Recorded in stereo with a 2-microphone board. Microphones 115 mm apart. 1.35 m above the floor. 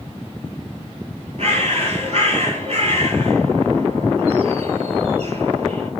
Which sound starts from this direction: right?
A bird, at 1.4 s.